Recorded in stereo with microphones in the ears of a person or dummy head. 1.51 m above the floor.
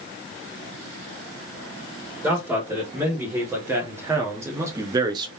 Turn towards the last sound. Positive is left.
turn(degrees=-30)  # may be behind; listen again after turning